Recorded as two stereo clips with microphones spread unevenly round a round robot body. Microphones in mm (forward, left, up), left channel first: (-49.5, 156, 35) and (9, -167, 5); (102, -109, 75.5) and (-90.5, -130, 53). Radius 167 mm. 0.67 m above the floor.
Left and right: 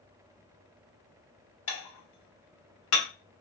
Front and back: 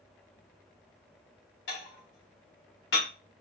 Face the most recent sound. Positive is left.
turn(degrees=55)